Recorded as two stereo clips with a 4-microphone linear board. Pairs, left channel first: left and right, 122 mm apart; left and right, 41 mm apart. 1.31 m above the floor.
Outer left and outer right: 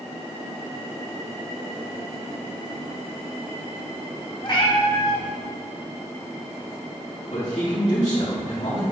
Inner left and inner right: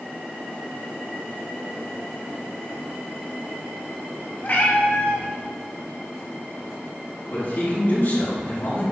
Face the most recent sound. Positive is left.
turn(degrees=70)  # may be behind; listen again after turning